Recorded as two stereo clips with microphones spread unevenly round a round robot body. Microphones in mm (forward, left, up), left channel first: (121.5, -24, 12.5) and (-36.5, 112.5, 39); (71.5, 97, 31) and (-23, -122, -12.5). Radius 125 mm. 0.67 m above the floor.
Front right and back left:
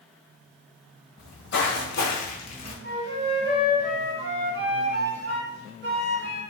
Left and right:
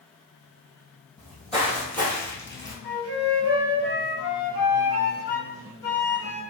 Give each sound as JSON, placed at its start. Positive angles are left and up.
{"t": 1.2, "sound": "footsteps", "azimuth_deg": -15, "distance_m": 1.4}
{"t": 2.8, "sound": "a flute", "azimuth_deg": 130, "distance_m": 1.4}